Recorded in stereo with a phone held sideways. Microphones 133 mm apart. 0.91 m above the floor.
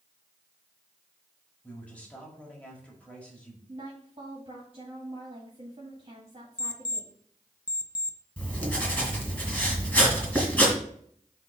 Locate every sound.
1.6 s a man speaking: 10° left (ahead or behind), 2.0 m
3.7 s a woman speaking: 45° right (ahead or behind), 1.9 m
6.6 s an alarm clock: 35° left (ahead or behind), 0.6 m
8.4 s writing: 10° left (ahead or behind), 2.5 m